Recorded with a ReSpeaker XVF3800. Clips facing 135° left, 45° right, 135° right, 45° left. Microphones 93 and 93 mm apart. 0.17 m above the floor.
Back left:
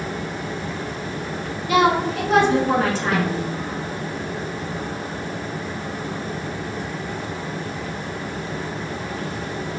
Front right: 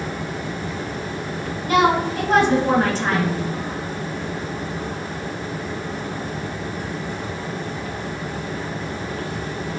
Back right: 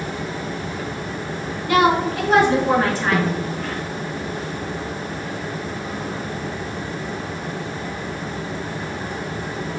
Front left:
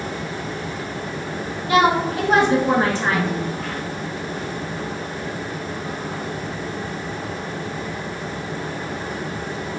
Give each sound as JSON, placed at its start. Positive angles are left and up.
{"t": 1.7, "sound": "a woman speaking", "azimuth_deg": -10, "distance_m": 1.5}
{"t": 3.1, "sound": "a snare drum", "azimuth_deg": -145, "distance_m": 1.1}